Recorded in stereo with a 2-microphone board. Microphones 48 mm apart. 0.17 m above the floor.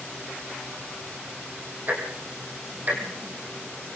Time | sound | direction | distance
1.9 | ticking | 35° right (ahead or behind) | 4 m